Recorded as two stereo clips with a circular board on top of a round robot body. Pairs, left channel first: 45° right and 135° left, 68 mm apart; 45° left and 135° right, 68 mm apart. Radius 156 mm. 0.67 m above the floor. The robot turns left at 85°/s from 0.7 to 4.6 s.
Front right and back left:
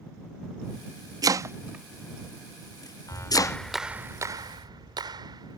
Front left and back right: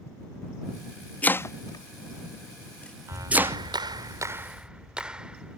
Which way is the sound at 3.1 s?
85° right.